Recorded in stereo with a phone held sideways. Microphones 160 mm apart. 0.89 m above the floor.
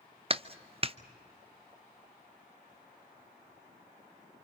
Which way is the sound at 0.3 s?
35° right (ahead or behind).